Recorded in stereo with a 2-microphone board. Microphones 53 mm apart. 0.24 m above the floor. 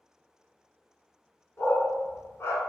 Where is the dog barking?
50° left (ahead or behind), 1.0 m.